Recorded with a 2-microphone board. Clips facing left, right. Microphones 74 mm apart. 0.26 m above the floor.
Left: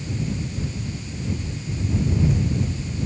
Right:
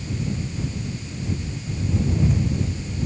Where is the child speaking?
I don't hear a child speaking.